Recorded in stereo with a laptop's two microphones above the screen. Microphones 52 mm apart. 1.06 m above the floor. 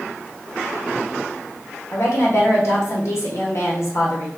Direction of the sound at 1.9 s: 60° left (ahead or behind).